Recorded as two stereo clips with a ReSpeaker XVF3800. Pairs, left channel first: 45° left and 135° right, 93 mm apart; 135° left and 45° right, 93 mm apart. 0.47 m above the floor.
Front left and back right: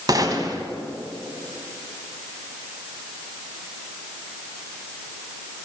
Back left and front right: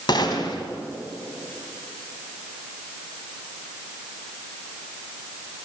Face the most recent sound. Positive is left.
turn(degrees=175)